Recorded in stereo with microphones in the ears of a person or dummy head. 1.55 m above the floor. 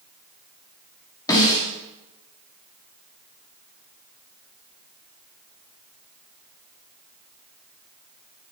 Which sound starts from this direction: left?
A snare drum, at 1.3 s.